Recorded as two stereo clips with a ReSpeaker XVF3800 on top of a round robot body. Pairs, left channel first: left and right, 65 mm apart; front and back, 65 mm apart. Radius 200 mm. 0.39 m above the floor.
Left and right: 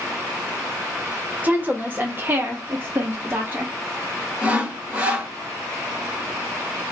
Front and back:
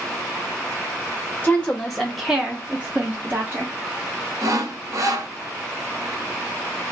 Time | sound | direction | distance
1.4 | a woman speaking | 50° right | 1.2 m
4.4 | sawing | 155° right | 1.4 m